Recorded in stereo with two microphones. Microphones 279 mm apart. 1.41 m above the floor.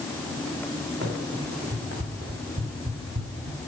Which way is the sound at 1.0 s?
40° right (ahead or behind).